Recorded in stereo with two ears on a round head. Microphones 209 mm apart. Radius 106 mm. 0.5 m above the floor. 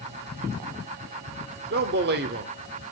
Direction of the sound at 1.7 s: 45° right (ahead or behind).